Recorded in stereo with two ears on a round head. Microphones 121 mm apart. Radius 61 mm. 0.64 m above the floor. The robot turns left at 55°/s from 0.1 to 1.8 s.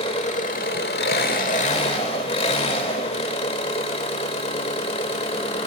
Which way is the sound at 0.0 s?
135° left.